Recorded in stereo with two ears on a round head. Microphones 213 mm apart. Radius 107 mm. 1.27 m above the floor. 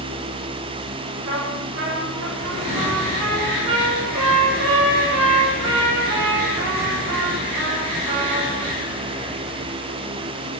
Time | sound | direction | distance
1.3 | a trumpet | 60° right (ahead or behind) | 6.5 m